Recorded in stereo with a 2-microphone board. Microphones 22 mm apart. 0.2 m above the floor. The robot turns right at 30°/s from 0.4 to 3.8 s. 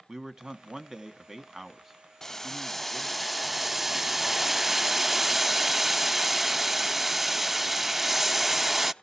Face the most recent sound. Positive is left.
turn(degrees=-165)